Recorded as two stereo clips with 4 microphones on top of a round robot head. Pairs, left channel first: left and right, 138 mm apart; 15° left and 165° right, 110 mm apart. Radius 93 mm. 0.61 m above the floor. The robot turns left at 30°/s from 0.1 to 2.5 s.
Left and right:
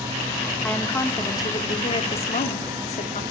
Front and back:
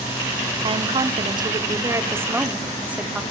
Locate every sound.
0.6 s a woman speaking: 175° left, 1.8 m; by 3.2 s 115° left, 1.8 m